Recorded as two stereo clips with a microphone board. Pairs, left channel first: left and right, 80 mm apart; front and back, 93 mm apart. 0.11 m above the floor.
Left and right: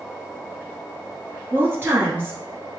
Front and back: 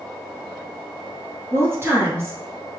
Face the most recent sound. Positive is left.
turn(degrees=-135)